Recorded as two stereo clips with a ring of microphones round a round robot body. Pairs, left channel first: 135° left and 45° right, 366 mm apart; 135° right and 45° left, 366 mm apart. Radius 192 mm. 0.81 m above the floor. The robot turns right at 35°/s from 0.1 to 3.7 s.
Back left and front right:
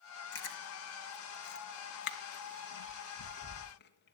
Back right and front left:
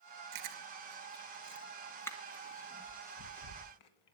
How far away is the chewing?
About 1.8 m.